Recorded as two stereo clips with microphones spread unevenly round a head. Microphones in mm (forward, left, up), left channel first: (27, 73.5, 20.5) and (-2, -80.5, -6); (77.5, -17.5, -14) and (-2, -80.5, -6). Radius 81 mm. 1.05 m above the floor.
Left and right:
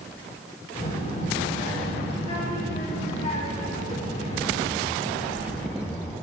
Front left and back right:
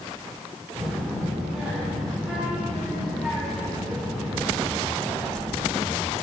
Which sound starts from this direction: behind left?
A child speaking, at 0.8 s.